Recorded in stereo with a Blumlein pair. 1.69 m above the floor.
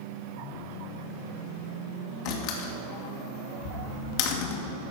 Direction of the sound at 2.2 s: 40° left.